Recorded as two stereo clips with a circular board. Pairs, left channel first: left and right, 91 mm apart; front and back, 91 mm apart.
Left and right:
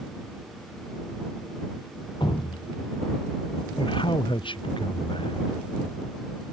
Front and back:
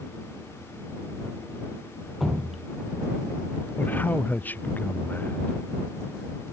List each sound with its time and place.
2.2 s dripping: 90° left
3.8 s a man speaking: 70° left